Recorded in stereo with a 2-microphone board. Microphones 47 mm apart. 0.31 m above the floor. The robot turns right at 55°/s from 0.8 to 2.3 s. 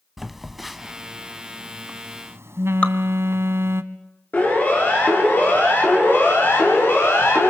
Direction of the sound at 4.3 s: 40° left (ahead or behind).